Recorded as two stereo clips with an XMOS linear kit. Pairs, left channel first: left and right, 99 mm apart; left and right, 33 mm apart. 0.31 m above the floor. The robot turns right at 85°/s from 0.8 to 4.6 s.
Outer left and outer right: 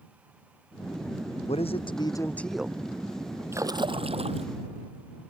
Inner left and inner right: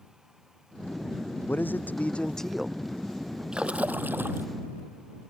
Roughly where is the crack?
I don't hear a crack.